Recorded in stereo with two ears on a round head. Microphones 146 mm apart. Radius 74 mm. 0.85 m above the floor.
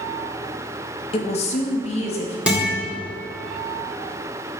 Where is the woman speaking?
35° left (ahead or behind), 0.6 m; by 2.4 s 40° left (ahead or behind), 1.3 m.